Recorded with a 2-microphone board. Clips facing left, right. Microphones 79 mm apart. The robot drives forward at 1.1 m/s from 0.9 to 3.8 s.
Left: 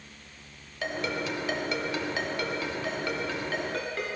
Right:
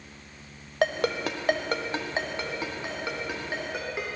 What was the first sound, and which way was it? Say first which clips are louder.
A ringtone: right 6 dB; 75° right (ahead or behind).